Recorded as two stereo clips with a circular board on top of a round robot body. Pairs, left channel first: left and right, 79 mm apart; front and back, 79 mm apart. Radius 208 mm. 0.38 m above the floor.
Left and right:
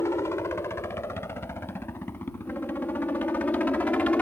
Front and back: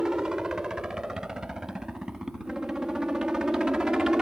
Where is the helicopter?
105° left; by 4.2 s 115° left.